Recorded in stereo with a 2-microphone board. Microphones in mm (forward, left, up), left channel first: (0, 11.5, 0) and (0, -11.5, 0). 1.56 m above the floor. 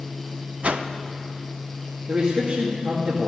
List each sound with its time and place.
0.6 s a whoosh: 50° right (ahead or behind), 0.6 m
2.1 s a man speaking: 50° right (ahead or behind), 2 m